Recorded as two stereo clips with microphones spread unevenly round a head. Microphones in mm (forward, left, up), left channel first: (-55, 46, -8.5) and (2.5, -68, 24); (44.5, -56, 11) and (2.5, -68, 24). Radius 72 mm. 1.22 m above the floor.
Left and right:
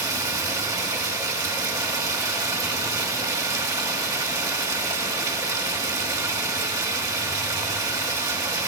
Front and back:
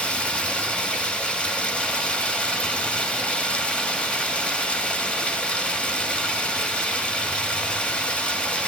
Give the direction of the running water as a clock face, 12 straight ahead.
2 o'clock.